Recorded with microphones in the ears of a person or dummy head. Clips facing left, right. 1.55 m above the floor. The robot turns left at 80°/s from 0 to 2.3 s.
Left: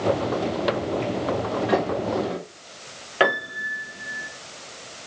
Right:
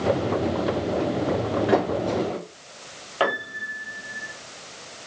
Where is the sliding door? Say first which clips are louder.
Right 1 dB; 30° right (ahead or behind), 1.8 m; by 2.4 s 15° left (ahead or behind), 1.8 m.